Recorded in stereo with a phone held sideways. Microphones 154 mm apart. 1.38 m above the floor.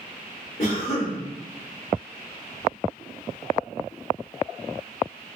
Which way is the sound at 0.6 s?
50° left (ahead or behind).